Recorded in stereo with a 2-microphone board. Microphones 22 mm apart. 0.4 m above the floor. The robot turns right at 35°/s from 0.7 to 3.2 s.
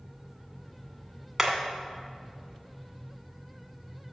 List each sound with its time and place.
1.4 s hammering: 10° right (ahead or behind), 1.8 m; by 1.5 s 15° right (ahead or behind), 1.8 m